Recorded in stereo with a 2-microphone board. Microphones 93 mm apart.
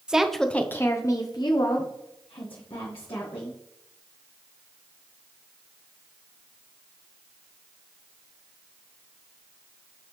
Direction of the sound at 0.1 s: 10° right (ahead or behind).